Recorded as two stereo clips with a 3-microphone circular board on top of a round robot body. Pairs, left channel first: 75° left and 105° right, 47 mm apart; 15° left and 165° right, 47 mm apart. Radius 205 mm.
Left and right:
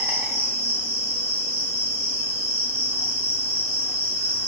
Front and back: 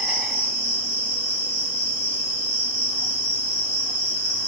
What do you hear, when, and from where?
0.0 s an insect: 95° right, 1.2 m